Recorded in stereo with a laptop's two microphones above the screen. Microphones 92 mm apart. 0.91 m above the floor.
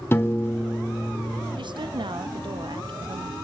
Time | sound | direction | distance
0.1 | a piano | 30° left (ahead or behind) | 1.1 m
1.6 | a woman speaking | 65° right (ahead or behind) | 0.7 m